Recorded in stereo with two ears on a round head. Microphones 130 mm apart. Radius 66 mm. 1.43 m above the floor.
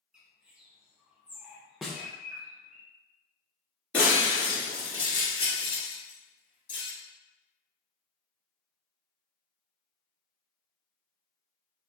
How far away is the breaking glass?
About 1.7 m.